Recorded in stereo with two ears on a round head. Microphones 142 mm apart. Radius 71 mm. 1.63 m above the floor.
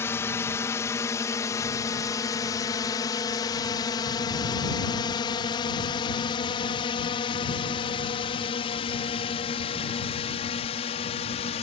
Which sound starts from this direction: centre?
A drone, at 0.0 s.